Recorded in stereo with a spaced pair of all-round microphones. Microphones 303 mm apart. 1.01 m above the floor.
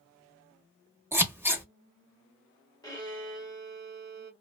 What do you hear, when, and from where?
1.1 s scissors: 5° right (ahead or behind), 0.9 m
2.8 s a violin: 15° left (ahead or behind), 0.8 m